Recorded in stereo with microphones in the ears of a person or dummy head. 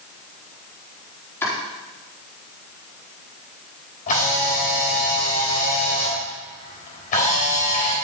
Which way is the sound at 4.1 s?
45° left (ahead or behind).